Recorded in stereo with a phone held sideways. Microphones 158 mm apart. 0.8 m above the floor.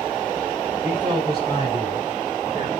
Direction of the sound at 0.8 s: 35° right (ahead or behind).